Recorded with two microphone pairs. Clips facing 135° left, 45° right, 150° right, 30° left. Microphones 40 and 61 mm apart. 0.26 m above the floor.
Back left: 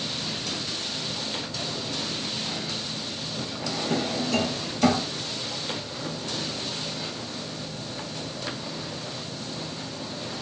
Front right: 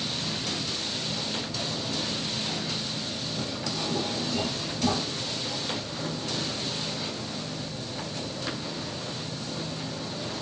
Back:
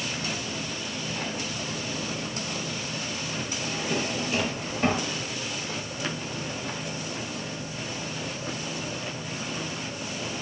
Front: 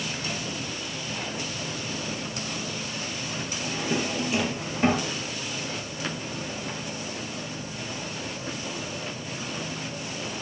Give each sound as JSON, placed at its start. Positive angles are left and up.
{"t": 3.6, "sound": "a drawer", "azimuth_deg": 105, "distance_m": 2.5}